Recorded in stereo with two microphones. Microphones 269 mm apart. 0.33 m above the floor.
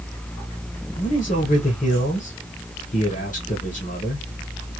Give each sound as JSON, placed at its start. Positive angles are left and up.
{"t": 1.0, "sound": "a man speaking", "side_deg": 30, "distance_m": 1.0}